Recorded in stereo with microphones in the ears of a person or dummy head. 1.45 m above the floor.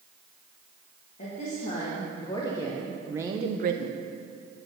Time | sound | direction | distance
1.2 | a woman speaking | 45° left (ahead or behind) | 2 m